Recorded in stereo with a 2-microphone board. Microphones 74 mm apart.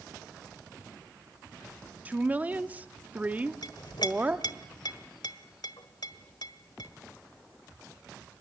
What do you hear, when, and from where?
2.0 s a woman speaking: 20° right (ahead or behind), 1.1 m
3.6 s a clink: 75° left (ahead or behind), 1.3 m